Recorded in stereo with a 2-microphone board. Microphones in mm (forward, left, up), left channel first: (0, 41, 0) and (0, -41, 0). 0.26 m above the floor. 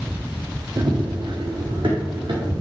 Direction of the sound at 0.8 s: 55° right (ahead or behind).